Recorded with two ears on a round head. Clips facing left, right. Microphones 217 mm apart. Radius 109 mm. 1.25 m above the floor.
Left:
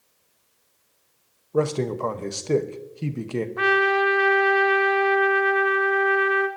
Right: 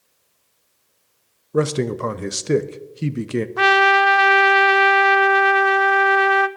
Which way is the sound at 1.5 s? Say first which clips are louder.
Right 3 dB; 20° right (ahead or behind).